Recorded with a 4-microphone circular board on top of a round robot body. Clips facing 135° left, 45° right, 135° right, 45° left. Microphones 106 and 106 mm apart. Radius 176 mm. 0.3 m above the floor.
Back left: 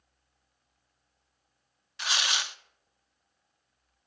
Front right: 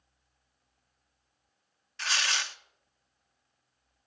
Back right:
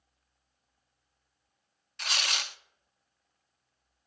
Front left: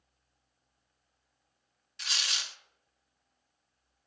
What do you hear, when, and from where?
2.0 s tearing paper: 155° right, 0.5 m